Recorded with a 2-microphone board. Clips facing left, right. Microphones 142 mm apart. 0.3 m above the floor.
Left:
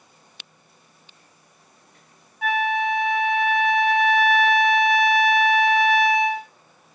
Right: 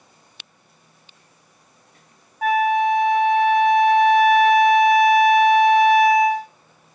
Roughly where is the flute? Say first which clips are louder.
Right 5 dB; right.